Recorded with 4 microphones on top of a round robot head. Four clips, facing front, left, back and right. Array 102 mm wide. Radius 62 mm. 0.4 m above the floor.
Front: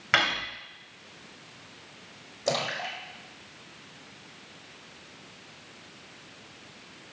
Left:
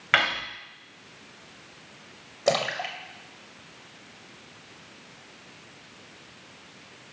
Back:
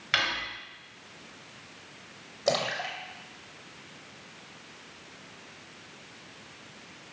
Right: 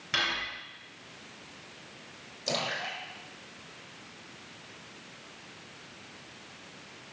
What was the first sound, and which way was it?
Cutlery clinking, 60° left.